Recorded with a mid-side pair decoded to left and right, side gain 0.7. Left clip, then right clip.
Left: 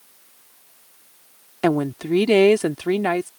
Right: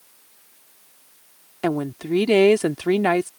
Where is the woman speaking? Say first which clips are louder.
Left 4 dB; 15° left; by 3.3 s 20° right.